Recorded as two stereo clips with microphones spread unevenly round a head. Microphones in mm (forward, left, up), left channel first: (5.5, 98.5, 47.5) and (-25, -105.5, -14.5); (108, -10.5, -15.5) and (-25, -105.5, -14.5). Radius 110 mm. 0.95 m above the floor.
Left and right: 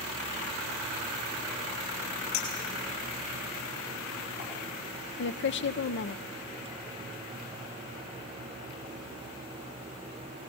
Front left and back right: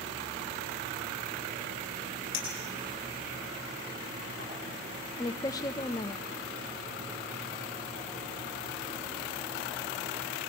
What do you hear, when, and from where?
2.3 s a clink: 90° left, 6.5 m
5.2 s a woman speaking: 90° left, 0.8 m